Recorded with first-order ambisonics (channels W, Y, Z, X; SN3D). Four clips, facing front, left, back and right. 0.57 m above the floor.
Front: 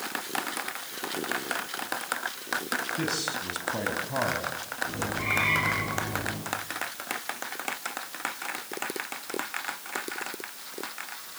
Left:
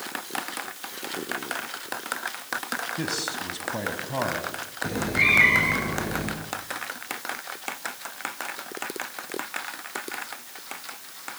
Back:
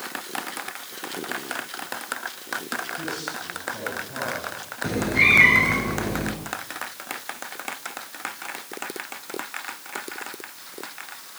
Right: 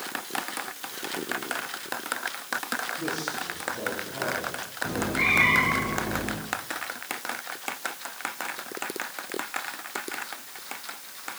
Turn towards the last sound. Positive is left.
turn(degrees=160)